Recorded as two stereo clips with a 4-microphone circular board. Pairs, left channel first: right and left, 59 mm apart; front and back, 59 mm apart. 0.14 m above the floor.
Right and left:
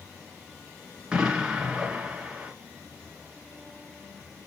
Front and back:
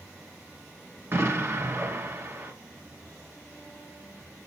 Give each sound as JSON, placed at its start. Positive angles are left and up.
{"t": 1.1, "sound": "an explosion", "azimuth_deg": 165, "distance_m": 1.7}